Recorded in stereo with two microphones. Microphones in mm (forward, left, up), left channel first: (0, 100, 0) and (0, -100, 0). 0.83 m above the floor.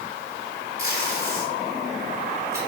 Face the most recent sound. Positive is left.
turn(degrees=-15)  # may be behind; listen again after turning